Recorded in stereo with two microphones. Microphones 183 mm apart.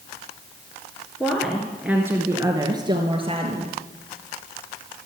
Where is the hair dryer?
I don't hear a hair dryer.